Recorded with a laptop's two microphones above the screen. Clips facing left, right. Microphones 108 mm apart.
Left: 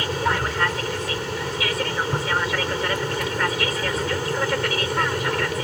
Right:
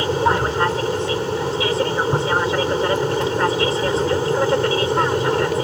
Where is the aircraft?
30° right (ahead or behind).